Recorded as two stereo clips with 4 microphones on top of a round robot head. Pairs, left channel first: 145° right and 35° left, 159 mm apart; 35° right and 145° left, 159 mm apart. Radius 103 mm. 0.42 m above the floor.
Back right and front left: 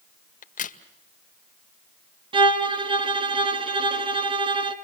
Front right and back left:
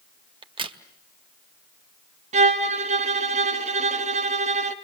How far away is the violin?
About 2 m.